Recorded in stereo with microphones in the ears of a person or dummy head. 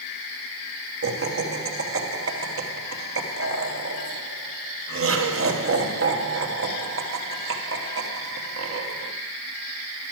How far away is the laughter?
About 1.1 m.